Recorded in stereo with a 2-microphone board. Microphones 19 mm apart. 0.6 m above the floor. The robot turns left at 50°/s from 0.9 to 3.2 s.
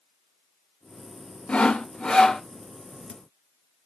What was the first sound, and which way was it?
Sawing, 85° left.